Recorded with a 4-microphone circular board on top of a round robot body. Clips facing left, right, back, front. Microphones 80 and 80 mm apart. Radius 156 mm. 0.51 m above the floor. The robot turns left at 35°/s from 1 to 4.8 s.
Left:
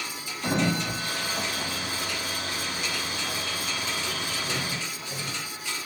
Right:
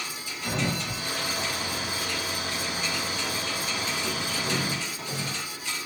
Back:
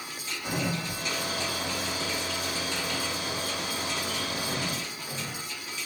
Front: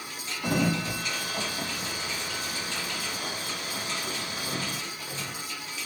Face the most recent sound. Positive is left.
turn(degrees=-100)